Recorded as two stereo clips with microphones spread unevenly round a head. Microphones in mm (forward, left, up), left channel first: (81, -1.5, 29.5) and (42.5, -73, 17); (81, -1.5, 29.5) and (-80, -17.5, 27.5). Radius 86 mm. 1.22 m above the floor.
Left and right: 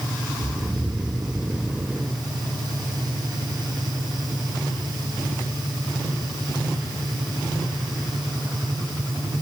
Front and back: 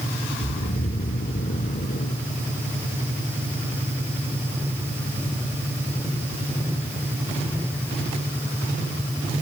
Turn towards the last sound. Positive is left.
turn(degrees=-35)